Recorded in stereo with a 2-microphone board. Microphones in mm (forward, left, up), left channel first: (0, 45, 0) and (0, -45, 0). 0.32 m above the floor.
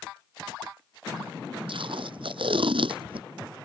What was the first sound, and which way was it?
Tape being pulled, 70° right (ahead or behind).